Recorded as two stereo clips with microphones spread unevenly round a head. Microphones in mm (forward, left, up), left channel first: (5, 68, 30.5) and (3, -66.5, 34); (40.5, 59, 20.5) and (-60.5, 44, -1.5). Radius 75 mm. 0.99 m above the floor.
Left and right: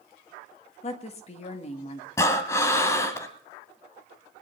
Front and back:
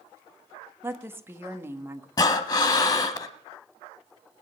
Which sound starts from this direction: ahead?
Breathing, at 2.2 s.